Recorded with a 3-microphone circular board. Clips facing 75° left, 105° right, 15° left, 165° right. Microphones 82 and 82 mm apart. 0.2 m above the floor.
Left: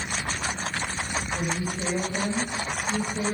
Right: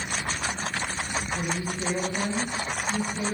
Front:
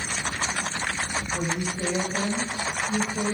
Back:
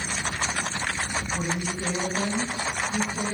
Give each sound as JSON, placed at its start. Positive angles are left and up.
{"t": 1.3, "sound": "a woman speaking", "azimuth_deg": 35, "distance_m": 8.0}